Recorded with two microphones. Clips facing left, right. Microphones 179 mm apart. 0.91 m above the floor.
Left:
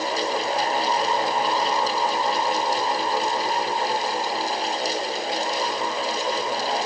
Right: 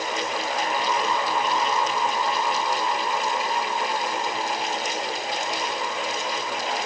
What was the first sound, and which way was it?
Only background noise.